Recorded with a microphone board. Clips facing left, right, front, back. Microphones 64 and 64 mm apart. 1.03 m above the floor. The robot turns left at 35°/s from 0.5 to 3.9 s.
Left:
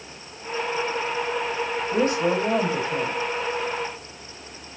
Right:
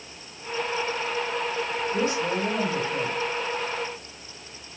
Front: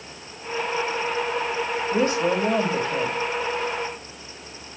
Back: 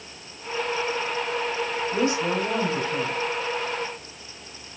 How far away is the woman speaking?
About 4 m.